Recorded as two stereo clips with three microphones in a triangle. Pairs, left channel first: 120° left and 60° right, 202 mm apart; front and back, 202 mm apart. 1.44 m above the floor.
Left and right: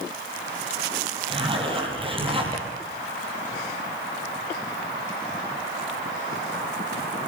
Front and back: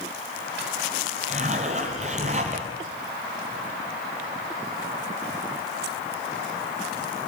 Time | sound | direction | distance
1.3 | a zipper | 125° right | 6.5 m